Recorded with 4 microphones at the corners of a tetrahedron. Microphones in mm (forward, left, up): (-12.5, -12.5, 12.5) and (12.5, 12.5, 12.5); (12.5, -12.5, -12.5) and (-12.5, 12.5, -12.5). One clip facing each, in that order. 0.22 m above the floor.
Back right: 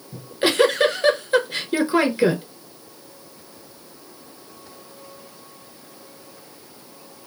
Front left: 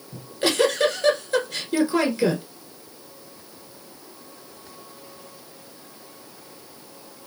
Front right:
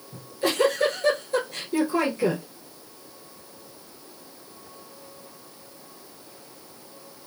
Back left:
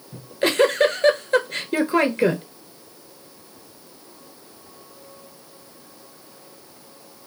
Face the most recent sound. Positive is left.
turn(degrees=165)